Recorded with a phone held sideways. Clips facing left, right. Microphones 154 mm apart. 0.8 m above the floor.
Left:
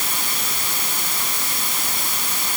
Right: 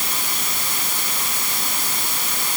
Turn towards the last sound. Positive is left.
No sound to turn to.